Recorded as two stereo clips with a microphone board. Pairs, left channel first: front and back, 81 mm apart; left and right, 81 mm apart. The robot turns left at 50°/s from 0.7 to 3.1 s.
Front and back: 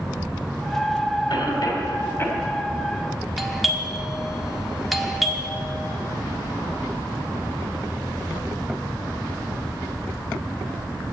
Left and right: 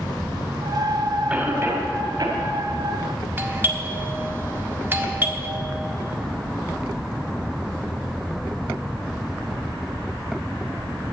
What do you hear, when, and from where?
1.3 s a cough: 15° right, 2.5 m; by 2.4 s 70° right, 2.5 m
3.4 s a doorbell: 95° right, 1.3 m